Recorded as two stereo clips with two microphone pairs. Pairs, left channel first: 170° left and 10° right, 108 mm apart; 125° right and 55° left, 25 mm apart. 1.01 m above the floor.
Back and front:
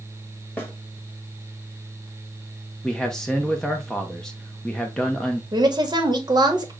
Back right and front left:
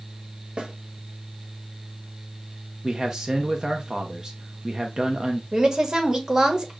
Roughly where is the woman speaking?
Ahead.